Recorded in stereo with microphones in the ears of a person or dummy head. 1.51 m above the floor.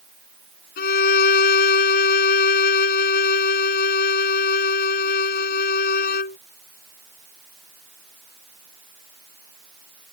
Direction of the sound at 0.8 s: 60° left (ahead or behind).